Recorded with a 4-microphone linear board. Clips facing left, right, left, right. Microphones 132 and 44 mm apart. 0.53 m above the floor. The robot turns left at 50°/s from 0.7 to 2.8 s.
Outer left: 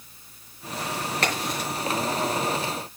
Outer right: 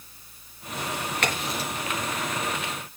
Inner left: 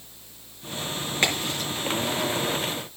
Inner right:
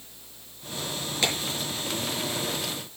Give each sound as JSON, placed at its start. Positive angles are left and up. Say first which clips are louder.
{"t": 1.2, "sound": "a crack", "louder": "outer left 1 dB, inner left 3 dB", "side_deg": 35, "distance_m": 6.0}